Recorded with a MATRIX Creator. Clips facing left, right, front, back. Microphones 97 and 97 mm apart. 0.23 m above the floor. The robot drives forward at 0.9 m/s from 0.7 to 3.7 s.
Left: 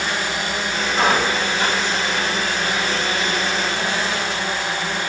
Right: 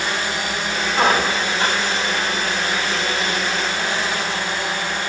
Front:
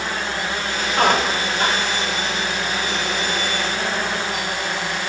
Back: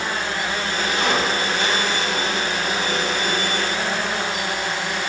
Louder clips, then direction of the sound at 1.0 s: Right 1 dB, front 5 dB; 35° right.